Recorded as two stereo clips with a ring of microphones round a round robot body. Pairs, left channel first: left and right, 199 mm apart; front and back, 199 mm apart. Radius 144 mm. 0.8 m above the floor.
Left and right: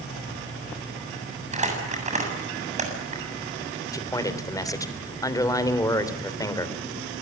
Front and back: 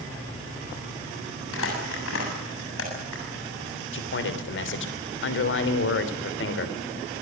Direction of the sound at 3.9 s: 15° left.